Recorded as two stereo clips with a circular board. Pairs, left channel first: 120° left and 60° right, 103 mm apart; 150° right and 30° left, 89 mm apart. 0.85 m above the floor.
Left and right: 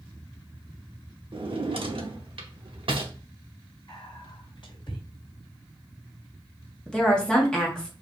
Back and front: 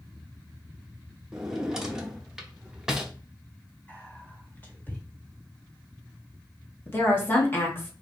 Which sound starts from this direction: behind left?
Whispering, at 3.9 s.